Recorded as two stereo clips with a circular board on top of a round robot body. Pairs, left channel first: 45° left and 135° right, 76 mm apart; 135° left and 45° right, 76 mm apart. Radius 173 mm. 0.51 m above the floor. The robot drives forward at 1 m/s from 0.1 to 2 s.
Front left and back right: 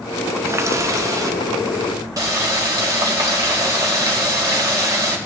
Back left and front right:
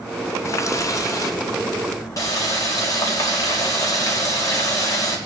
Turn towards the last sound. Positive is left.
turn(degrees=180)